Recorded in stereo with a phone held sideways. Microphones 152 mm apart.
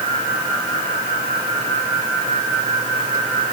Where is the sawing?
No sawing in this recording.